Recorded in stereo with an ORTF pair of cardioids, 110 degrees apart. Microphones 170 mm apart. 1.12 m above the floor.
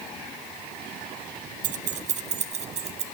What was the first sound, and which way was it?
Keys jangling, 50° right.